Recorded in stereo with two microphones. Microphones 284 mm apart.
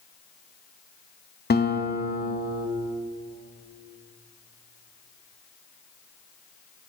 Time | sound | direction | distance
1.5 | a guitar | 35° left (ahead or behind) | 0.6 m